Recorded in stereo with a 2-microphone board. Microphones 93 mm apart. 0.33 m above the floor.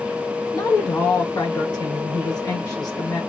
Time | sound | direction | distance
0.5 | a woman speaking | 45° left (ahead or behind) | 1.2 m